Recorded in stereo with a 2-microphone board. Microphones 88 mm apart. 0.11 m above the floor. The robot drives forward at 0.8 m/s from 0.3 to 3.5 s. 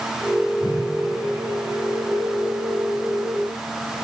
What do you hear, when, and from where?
0.6 s a whoosh: 80° left, 5.5 m